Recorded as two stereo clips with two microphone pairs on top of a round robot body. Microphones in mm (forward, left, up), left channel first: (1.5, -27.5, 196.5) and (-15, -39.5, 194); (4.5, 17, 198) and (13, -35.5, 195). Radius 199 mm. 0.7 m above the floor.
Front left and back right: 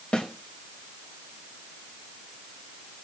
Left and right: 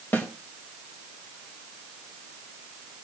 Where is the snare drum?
55° left, 2 m.